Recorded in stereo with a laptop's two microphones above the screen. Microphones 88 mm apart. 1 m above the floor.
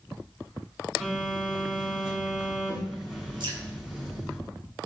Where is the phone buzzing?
5° right (ahead or behind), 5 m.